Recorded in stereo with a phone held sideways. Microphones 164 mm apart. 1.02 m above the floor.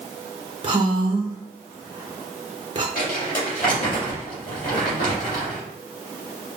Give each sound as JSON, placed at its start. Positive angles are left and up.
{"t": 0.6, "sound": "a woman speaking", "side_deg": -30, "distance_m": 0.7}
{"t": 3.0, "sound": "crumpling", "side_deg": 55, "distance_m": 2.0}